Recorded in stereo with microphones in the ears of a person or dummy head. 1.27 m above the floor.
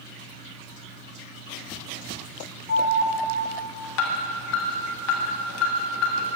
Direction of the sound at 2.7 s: 70° left (ahead or behind).